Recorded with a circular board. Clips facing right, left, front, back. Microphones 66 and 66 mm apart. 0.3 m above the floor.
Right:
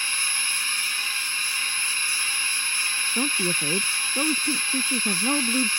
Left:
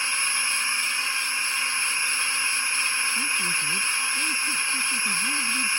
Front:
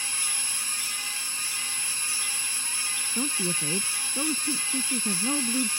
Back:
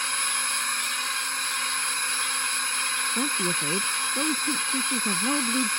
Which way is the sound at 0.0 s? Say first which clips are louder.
Left 2 dB, back 7 dB; 160° left.